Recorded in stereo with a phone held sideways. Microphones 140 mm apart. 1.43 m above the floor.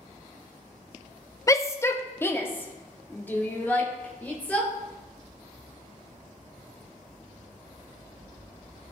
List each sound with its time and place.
1.5 s a shout: 20° left (ahead or behind), 0.5 m; by 4.7 s 10° left (ahead or behind), 2.5 m